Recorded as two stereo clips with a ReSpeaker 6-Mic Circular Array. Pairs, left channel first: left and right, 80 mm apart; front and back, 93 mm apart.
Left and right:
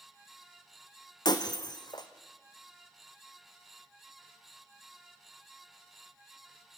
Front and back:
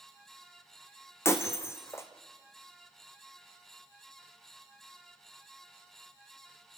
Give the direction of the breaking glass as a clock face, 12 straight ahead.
10 o'clock.